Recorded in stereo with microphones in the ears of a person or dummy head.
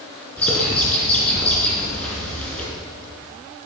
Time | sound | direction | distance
0.4 | a bird | 10° left (ahead or behind) | 4 m